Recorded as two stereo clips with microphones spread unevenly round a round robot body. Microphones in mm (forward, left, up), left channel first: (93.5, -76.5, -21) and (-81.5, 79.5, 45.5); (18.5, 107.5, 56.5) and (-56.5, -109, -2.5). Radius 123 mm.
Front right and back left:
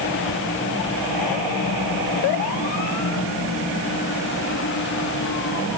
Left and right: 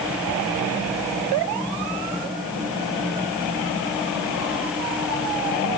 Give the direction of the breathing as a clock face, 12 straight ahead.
I don't hear breathing.